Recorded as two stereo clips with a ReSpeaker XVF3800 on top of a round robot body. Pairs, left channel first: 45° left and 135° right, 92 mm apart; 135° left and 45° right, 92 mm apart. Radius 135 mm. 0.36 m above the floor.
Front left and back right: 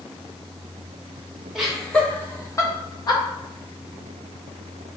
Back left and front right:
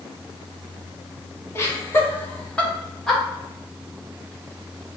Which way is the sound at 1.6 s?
150° left.